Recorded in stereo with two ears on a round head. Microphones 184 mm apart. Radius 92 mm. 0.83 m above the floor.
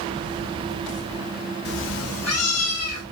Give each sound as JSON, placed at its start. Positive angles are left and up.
{"t": 1.6, "sound": "a cat meowing", "side_deg": 50, "distance_m": 0.6}